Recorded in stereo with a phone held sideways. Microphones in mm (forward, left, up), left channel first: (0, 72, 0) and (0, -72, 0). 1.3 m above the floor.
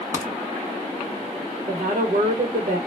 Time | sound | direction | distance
0.1 | a crack | 75° right (ahead or behind) | 0.7 m
1.7 | a woman speaking | 65° right (ahead or behind) | 1.2 m